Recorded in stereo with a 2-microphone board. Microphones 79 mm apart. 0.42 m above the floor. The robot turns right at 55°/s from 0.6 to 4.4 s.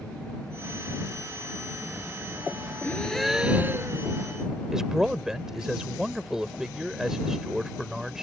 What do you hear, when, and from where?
2.8 s a gasp: 155° left; by 4.1 s 135° right
4.7 s a man speaking: 10° right (ahead or behind)